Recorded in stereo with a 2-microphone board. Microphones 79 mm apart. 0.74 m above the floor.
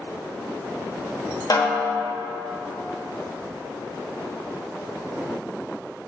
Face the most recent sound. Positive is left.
turn(degrees=55)  # may be behind; listen again after turning